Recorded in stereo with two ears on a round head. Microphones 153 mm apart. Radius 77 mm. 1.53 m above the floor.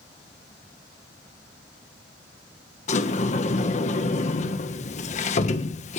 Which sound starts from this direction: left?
A sliding door, at 2.9 s.